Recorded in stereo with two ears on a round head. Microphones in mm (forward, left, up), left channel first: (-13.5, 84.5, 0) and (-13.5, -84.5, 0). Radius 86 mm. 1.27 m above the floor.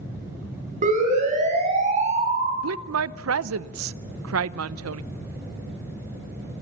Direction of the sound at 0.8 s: 40° right (ahead or behind).